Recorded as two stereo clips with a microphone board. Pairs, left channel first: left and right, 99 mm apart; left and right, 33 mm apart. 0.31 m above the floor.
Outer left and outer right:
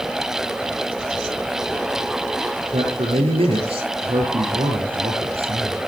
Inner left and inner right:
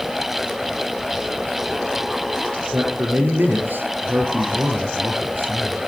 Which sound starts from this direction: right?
A man speaking, at 2.7 s.